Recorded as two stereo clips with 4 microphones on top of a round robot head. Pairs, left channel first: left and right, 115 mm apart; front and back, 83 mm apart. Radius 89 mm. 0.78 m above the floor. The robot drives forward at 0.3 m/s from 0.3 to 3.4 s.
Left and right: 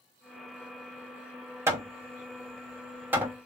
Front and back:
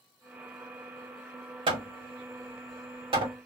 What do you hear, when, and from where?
1.7 s hammering: 160° right, 1.1 m; by 3.4 s 165° right, 1.6 m